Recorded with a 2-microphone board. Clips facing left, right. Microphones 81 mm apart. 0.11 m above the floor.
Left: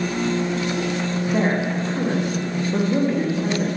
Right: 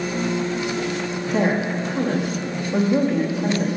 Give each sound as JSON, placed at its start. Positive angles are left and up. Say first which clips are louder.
{"t": 1.3, "sound": "a woman speaking", "louder": "right 1 dB", "side_deg": 5, "distance_m": 5.5}